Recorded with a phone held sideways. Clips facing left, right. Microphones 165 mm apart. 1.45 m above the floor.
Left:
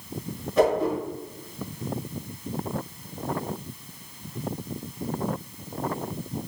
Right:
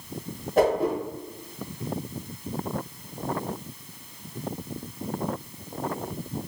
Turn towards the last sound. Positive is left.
turn(degrees=-45)  # may be behind; listen again after turning